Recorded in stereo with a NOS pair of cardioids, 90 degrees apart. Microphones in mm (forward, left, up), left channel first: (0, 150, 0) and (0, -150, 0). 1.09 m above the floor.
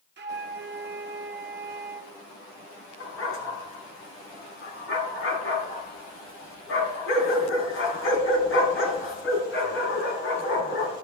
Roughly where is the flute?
Ahead right.